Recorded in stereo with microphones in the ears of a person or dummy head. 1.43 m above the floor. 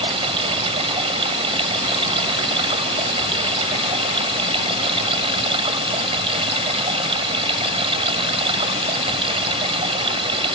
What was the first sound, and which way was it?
Running water, 35° right (ahead or behind).